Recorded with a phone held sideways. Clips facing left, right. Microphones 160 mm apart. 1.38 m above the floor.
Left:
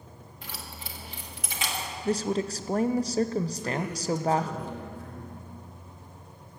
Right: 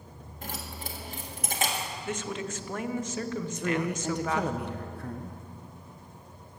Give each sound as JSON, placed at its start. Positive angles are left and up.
{"t": 0.4, "sound": "keys jangling", "side_deg": -45, "distance_m": 1.6}
{"t": 2.0, "sound": "a woman speaking", "side_deg": 35, "distance_m": 0.6}
{"t": 3.5, "sound": "a man speaking", "side_deg": -70, "distance_m": 1.3}